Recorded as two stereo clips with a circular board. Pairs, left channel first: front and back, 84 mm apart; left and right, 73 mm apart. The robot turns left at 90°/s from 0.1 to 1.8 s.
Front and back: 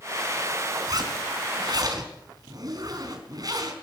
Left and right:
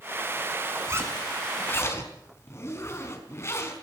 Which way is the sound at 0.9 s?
135° right.